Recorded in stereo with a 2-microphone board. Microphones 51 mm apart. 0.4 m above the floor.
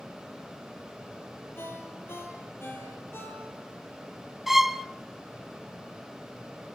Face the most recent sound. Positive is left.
turn(degrees=-5)  # may be behind; listen again after turning